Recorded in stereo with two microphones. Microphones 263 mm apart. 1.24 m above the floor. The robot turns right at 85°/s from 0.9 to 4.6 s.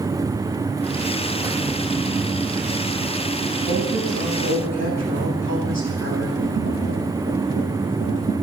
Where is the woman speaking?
160° right, 8.5 m; by 6.3 s 80° right, 8.5 m.